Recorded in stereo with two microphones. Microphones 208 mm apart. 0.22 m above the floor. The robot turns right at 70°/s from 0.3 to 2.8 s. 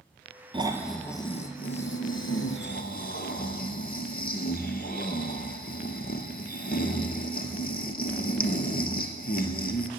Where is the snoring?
25° right, 1.0 m; by 9.9 s 130° left, 1.0 m.